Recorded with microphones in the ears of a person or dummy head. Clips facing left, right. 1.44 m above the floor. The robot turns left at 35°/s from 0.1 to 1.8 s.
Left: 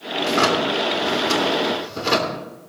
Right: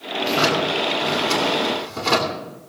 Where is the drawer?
75° left, 2.5 m; by 2.4 s 20° left, 2.5 m.